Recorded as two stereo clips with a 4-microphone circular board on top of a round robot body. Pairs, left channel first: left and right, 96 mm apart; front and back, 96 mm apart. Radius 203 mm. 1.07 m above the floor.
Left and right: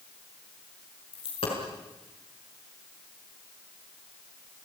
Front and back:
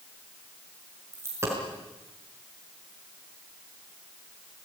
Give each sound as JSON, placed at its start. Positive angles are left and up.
{"t": 1.1, "sound": "a dropped coin", "azimuth_deg": 115, "distance_m": 5.0}